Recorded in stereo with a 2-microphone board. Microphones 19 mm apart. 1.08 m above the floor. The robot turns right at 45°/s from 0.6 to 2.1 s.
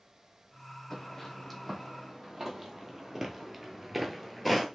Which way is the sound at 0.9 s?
30° left (ahead or behind).